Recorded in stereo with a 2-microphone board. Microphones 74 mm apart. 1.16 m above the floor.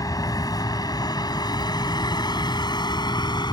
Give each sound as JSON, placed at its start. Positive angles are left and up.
{"t": 0.0, "sound": "a vehicle", "side_deg": 55}